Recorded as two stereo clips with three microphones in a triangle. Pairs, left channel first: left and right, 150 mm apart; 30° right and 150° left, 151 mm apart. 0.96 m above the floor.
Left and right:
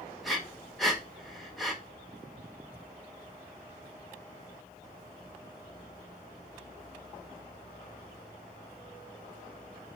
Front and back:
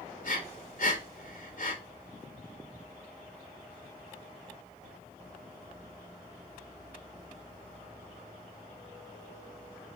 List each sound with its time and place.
0.2 s breathing: straight ahead, 1.0 m